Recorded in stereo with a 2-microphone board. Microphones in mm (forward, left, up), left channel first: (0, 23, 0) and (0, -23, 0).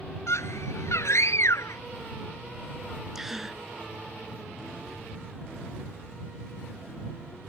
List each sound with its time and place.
0.3 s a scream: 75° left (ahead or behind)
3.1 s a gasp: 10° right (ahead or behind)